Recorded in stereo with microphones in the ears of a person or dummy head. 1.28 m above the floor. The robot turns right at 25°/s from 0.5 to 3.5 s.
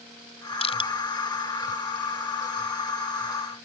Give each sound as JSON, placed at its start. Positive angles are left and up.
{"t": 0.6, "sound": "crushing", "side_deg": 30}